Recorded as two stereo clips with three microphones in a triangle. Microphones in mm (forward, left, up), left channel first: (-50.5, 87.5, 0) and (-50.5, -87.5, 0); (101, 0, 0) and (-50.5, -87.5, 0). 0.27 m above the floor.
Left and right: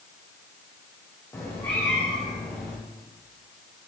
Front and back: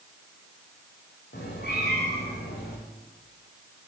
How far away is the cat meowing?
About 4.5 m.